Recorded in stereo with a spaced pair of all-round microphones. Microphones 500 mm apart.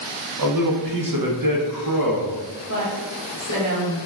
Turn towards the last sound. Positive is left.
turn(degrees=35)  # may be behind; listen again after turning